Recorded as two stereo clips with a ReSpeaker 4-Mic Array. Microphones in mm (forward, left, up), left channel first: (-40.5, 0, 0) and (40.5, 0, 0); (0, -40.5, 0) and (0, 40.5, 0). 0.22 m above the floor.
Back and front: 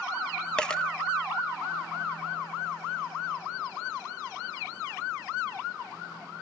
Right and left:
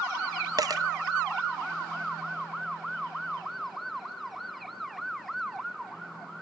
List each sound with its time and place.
0.6 s a dropped coin: 105° left, 0.8 m